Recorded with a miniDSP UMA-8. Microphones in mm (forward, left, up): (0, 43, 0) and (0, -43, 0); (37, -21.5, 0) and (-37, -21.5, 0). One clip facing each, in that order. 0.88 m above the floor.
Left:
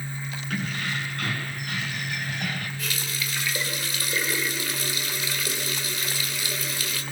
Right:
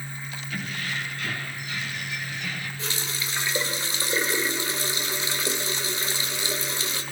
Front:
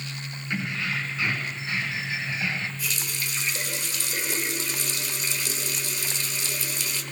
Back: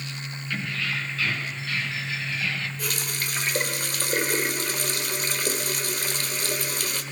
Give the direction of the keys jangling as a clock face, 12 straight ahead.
10 o'clock.